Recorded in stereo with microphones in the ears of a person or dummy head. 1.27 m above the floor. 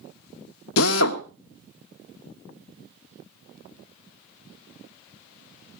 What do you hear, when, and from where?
0.8 s a drill: 85° left, 1.3 m